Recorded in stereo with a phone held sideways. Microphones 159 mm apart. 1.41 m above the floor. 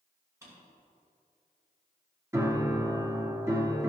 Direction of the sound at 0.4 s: 20° right (ahead or behind).